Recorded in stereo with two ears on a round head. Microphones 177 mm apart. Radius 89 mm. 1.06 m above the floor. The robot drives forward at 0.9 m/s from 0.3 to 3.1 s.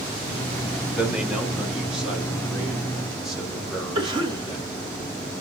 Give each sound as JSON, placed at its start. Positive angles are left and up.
{"t": 1.0, "sound": "a man speaking", "side_deg": -5, "distance_m": 1.1}
{"t": 4.0, "sound": "a cough", "side_deg": -25, "distance_m": 1.7}